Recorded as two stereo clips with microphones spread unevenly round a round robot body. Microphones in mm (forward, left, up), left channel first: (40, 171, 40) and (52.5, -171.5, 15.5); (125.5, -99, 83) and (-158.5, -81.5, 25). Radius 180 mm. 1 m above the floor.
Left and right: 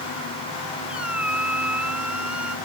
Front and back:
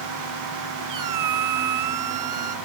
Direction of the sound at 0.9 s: 175° right.